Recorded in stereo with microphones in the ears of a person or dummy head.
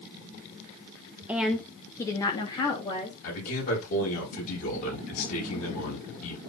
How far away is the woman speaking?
About 0.5 m.